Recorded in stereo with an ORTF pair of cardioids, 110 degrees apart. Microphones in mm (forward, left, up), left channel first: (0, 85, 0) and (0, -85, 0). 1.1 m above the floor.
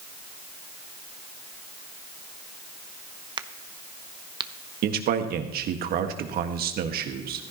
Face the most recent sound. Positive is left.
turn(degrees=-65)